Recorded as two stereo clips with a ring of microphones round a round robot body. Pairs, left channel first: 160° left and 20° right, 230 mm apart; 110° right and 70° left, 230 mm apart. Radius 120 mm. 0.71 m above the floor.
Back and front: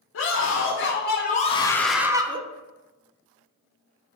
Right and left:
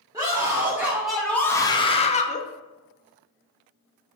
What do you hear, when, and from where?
0.1 s a scream: 140° left, 1.9 m; by 2.4 s 75° right, 1.1 m